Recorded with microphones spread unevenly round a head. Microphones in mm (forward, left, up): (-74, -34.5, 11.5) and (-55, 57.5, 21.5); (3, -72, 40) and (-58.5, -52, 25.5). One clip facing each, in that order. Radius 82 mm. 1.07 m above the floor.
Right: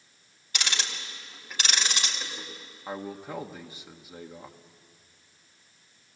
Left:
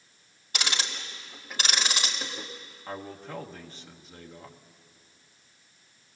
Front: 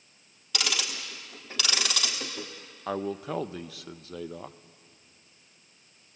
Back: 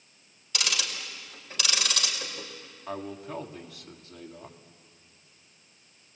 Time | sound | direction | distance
0.5 | ticking | 5° left | 1.8 m
2.9 | a man speaking | 25° right | 1.0 m